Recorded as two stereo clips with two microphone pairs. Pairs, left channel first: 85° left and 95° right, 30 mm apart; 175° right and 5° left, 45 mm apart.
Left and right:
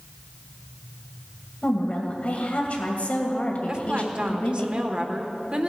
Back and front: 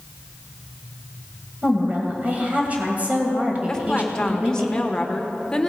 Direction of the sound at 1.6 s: 55° left.